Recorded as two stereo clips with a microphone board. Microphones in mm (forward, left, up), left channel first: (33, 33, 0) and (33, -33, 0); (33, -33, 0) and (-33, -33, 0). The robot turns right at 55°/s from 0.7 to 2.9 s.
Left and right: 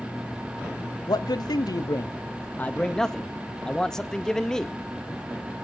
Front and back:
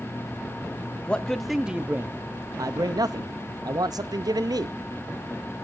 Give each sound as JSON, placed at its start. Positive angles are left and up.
{"t": 1.1, "sound": "a man speaking", "azimuth_deg": 70, "distance_m": 0.7}